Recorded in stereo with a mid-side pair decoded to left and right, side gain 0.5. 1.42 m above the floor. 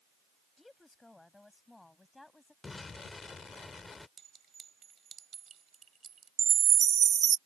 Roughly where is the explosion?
Ahead left.